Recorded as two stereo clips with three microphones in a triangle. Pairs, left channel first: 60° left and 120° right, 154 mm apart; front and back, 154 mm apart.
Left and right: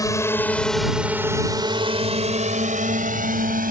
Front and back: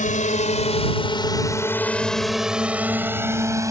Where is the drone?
5° right; by 3.7 s 110° right.